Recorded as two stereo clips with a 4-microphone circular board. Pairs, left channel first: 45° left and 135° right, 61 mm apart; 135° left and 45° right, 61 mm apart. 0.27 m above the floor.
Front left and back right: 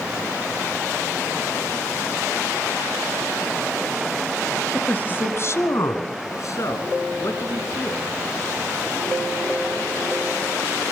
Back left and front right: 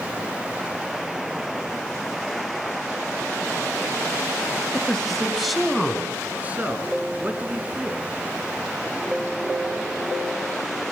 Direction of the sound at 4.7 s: 80° left.